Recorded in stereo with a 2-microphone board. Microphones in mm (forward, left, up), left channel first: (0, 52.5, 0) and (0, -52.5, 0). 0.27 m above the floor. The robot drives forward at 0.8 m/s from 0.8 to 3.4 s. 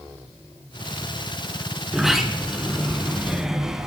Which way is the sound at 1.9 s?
5° right (ahead or behind).